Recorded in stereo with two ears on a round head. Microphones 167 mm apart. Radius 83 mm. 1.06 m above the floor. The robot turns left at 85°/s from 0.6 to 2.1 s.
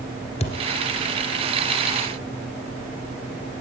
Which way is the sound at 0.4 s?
35° left (ahead or behind).